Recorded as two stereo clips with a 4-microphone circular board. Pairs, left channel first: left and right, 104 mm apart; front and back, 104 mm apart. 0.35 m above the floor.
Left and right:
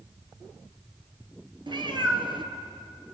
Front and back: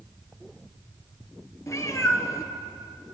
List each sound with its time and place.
1.7 s a cat meowing: 55° right, 1.1 m